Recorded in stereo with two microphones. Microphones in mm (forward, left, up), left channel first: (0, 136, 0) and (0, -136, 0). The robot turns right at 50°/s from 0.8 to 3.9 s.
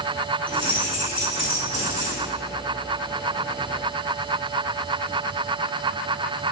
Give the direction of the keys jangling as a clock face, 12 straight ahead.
5 o'clock.